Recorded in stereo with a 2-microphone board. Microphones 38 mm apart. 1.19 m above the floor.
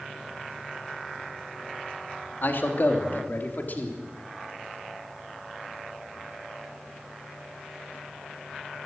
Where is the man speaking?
60° left (ahead or behind), 3 m; by 4.0 s 50° left (ahead or behind), 3.5 m.